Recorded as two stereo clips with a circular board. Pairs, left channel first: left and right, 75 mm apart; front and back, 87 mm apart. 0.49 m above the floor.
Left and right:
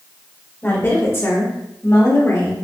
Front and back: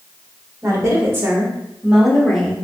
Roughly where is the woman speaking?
Behind left.